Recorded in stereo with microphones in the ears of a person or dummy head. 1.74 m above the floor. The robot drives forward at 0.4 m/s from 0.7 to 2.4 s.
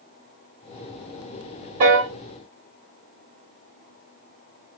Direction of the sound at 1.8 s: 35° right (ahead or behind).